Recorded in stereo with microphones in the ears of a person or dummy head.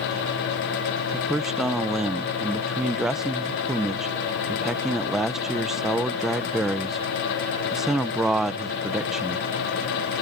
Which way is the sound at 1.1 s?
5° right (ahead or behind).